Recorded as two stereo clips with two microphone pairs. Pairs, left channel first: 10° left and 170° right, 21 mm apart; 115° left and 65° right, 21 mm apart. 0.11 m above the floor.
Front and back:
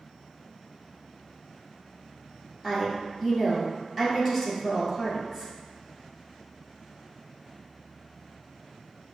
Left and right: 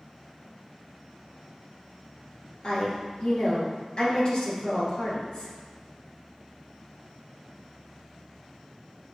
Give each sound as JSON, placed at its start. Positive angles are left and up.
{"t": 2.6, "sound": "a woman speaking", "azimuth_deg": 95, "distance_m": 1.9}